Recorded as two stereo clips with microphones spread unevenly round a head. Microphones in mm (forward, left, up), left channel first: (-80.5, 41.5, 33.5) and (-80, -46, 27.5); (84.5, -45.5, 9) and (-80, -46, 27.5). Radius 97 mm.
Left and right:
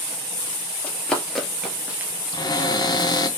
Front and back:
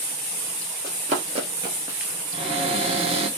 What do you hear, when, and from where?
0.8 s running footsteps: 155° left, 1.7 m; by 2.1 s 115° right, 1.1 m
2.3 s a cupboard door: 125° left, 0.9 m